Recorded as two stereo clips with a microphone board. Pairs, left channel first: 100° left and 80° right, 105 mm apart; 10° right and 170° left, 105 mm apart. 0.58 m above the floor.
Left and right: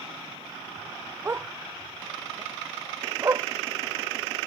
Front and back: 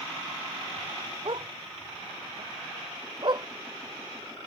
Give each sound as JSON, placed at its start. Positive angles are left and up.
{"t": 1.2, "sound": "a dog barking", "azimuth_deg": -150}